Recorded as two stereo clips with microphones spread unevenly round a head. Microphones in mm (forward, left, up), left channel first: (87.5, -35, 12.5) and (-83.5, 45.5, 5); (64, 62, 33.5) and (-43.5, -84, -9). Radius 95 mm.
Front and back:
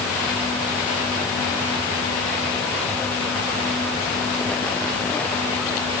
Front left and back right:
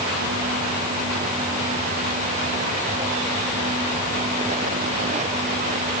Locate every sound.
Only background noise.